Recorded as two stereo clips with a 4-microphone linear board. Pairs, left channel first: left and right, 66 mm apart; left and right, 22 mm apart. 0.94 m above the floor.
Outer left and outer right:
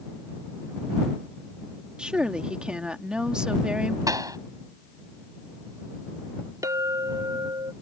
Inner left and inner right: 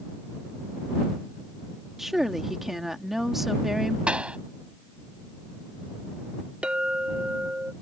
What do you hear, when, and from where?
2.0 s a woman speaking: 15° right (ahead or behind)
4.1 s a pop: 70° right (ahead or behind)
6.6 s a clink: 65° right (ahead or behind)